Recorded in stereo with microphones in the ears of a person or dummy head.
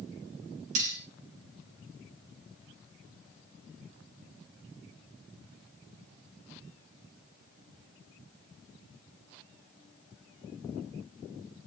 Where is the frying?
I don't hear frying.